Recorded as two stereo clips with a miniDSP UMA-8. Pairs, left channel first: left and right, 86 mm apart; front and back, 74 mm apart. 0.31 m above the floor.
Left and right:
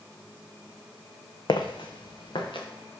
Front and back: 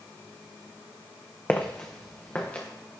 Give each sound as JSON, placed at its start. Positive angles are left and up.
{"t": 1.5, "sound": "footsteps", "azimuth_deg": 65, "distance_m": 0.7}